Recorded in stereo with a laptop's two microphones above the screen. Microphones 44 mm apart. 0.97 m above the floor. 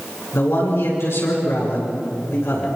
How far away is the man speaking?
About 9 m.